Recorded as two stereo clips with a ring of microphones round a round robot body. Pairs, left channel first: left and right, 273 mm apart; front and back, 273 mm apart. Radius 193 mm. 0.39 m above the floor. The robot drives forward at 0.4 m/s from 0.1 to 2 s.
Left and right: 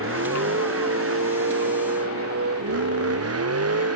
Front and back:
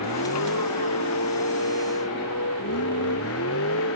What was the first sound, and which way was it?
A vehicle, 50° right.